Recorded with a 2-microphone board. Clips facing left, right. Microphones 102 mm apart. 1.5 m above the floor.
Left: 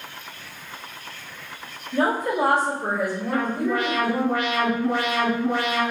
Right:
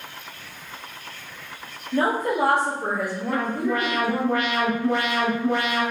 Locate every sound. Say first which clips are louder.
1.9 s a woman speaking: even; 70° right (ahead or behind), 1.2 m
3.3 s an alarm: even; centre (ahead or behind), 1.2 m